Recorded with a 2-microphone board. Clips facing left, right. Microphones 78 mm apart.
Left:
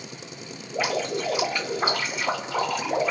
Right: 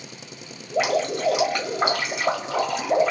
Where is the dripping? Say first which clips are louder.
Right 4 dB; 75° right (ahead or behind), 1.3 m.